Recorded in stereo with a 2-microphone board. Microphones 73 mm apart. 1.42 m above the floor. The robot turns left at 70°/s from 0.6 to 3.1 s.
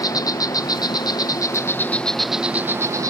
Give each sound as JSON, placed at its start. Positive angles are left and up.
{"t": 0.0, "sound": "an insect", "azimuth_deg": 115}